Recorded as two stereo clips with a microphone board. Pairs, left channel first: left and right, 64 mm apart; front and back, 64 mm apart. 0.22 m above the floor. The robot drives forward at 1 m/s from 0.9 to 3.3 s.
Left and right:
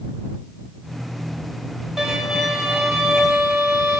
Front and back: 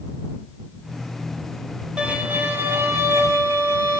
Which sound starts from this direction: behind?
A violin, at 2.0 s.